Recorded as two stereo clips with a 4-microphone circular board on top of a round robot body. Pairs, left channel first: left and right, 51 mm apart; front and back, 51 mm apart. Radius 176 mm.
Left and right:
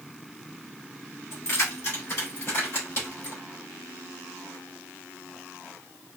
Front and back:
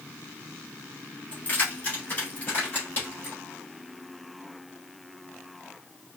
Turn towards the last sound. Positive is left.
turn(degrees=55)